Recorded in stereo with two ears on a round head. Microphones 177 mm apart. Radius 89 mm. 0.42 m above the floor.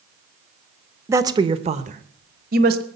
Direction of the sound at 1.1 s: 15° right (ahead or behind).